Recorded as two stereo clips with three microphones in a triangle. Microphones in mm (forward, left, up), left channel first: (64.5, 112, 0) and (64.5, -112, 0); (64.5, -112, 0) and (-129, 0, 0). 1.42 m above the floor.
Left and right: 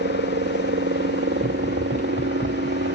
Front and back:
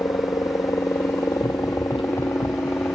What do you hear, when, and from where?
0.0 s a helicopter: 105° right; by 3.0 s 110° right
1.4 s running footsteps: 40° left; by 3.0 s 35° left